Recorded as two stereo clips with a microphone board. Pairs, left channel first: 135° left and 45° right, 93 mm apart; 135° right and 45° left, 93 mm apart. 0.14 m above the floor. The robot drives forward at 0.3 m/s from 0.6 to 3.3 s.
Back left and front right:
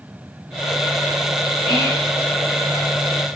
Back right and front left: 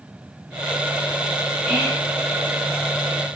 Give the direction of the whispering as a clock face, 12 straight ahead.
8 o'clock.